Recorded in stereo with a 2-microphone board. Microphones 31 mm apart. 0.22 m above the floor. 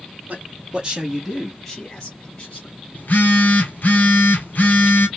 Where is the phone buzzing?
60° left (ahead or behind), 1.2 m.